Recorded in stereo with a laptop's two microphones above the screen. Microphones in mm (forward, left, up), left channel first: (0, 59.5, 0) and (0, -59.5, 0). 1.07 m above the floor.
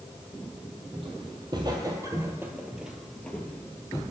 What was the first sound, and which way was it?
Footsteps, 45° right (ahead or behind).